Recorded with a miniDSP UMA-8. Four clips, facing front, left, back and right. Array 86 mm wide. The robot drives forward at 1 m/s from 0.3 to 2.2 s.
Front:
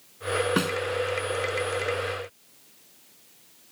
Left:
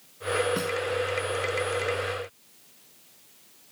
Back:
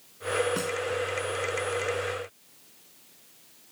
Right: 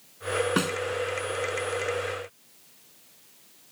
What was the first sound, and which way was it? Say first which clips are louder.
A snare drum: right 2 dB, front 5 dB; 45° right.